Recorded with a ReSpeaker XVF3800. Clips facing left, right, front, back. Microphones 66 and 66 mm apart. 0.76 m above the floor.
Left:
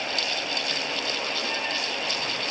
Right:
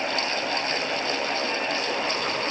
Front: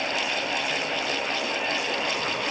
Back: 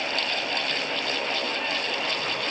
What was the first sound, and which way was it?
Only background noise.